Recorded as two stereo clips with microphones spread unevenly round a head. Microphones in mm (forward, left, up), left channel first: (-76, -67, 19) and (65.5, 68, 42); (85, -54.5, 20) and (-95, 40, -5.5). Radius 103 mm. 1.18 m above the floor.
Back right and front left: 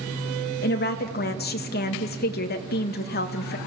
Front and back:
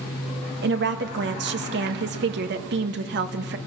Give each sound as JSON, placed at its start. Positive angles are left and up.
{"t": 0.6, "sound": "a woman speaking", "azimuth_deg": -175, "distance_m": 1.5}